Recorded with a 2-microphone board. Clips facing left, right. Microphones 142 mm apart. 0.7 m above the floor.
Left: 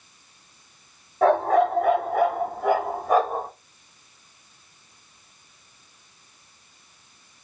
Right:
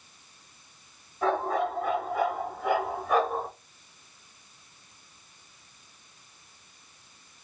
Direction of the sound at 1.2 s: 70° left (ahead or behind).